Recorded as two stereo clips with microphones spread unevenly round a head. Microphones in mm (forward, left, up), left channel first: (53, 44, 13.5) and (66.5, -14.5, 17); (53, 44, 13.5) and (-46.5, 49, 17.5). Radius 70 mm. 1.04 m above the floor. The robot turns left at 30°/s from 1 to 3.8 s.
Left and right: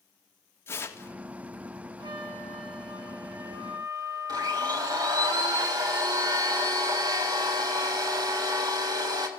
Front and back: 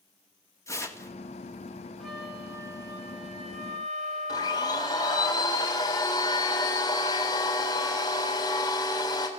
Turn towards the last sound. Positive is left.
turn(degrees=-70)